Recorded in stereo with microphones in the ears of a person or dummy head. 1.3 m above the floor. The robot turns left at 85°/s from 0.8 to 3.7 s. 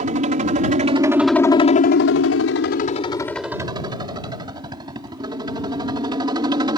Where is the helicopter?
135° right; by 6.8 s 25° right.